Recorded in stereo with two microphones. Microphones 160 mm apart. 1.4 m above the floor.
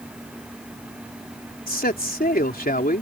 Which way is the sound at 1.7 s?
65° left (ahead or behind).